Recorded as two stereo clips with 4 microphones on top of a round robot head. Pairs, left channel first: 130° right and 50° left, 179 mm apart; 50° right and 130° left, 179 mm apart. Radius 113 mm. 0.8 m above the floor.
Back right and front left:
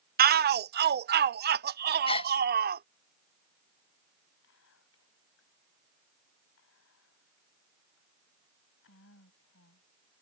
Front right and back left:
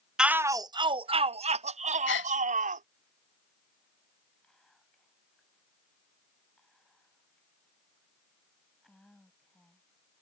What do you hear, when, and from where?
0.2 s a shout: 45° left; by 2.8 s 85° left
2.1 s a gasp: 70° right
4.4 s whispering: 135° right